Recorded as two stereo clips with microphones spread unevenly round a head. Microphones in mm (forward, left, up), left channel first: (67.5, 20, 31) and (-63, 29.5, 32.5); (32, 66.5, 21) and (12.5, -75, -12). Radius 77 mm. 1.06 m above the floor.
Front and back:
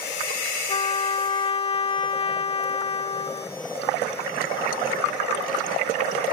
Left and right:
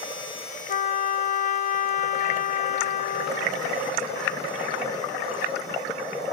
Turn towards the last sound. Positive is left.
turn(degrees=45)